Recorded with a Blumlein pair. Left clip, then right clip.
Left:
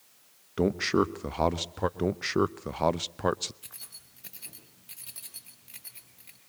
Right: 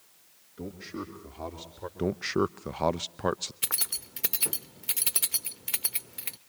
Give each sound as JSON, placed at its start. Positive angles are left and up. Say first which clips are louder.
{"t": 0.6, "sound": "a man speaking", "louder": "left 14 dB", "azimuth_deg": 40, "distance_m": 1.1}
{"t": 2.0, "sound": "a man speaking", "louder": "right 2 dB", "azimuth_deg": 5, "distance_m": 0.6}
{"t": 3.6, "sound": "keys jangling", "louder": "right 15 dB", "azimuth_deg": -50, "distance_m": 1.1}